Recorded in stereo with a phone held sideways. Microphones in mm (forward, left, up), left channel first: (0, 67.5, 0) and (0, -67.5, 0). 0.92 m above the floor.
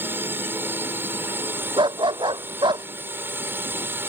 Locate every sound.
0.0 s a drone: 15° right (ahead or behind)
1.8 s a dog barking: 35° right (ahead or behind)